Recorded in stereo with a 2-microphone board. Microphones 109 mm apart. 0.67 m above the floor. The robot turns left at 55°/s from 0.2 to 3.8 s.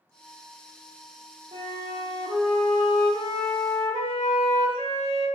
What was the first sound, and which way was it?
A flute, 115° right.